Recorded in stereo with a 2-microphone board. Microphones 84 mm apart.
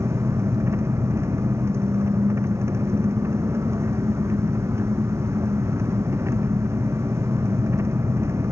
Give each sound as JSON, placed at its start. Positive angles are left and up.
{"t": 0.0, "sound": "an engine running", "side_deg": -30}